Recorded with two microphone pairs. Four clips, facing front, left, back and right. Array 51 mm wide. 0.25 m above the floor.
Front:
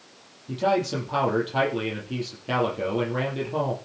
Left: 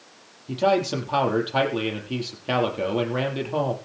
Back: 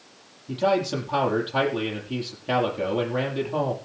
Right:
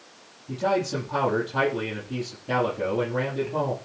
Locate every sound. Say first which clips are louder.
0.5 s a man speaking: left 3 dB, back 1 dB; 105° left, 7.5 m